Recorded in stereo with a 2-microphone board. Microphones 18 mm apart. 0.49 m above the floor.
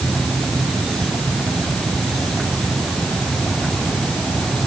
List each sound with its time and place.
Only background noise.